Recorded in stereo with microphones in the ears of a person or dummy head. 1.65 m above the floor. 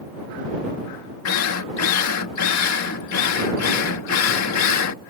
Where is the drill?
85° left.